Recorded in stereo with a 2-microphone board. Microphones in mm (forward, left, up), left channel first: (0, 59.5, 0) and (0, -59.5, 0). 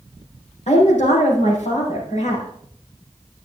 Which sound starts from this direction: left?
A woman speaking, at 0.7 s.